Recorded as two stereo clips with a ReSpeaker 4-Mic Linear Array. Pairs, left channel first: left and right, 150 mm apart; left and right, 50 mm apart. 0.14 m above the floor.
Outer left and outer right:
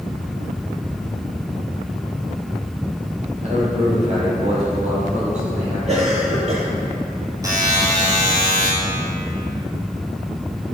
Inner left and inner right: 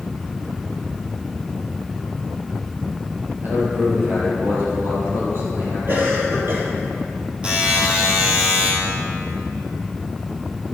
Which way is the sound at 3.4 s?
45° right (ahead or behind).